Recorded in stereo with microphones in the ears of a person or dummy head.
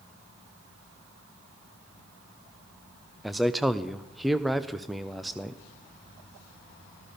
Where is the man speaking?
Centre (ahead or behind), 0.7 m.